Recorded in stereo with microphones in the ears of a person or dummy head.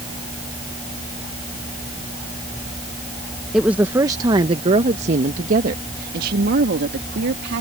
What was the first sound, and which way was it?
A woman speaking, 5° right (ahead or behind).